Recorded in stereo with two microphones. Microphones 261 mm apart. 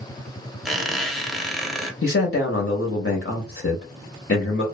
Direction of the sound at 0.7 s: Centre (ahead or behind).